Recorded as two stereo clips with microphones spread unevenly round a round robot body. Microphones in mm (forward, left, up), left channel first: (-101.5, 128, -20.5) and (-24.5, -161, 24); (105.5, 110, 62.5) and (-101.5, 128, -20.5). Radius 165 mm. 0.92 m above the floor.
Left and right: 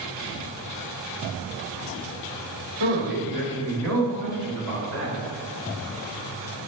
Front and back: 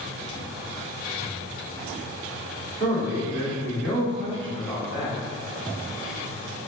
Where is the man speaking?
75° right, 2.5 m; by 5.2 s 115° right, 5.5 m.